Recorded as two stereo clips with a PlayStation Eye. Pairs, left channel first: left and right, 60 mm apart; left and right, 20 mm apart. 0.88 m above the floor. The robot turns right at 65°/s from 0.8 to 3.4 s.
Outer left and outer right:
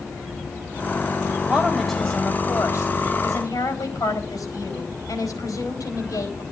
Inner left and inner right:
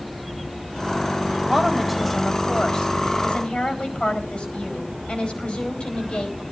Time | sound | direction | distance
1.5 | a woman speaking | 30° right | 4 m